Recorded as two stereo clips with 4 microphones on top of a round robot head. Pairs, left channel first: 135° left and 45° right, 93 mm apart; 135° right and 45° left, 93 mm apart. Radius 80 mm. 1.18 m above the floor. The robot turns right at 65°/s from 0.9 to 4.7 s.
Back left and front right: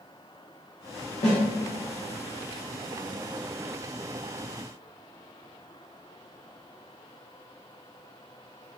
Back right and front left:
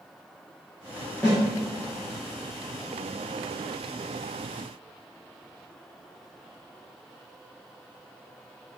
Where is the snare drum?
140° left, 1.1 m; by 1.4 s 150° left, 1.1 m.